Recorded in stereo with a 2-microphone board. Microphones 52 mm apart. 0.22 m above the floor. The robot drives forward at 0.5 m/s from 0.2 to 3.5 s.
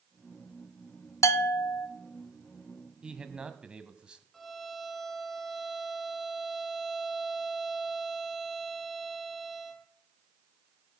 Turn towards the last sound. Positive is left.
turn(degrees=0)  # may be behind; listen again after turning